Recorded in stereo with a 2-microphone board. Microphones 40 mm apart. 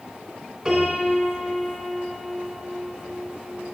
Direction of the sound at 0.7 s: 10° right (ahead or behind).